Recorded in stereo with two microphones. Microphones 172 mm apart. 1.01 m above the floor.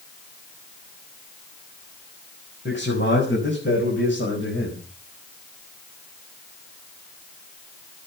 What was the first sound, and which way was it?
A man speaking, 75° left (ahead or behind).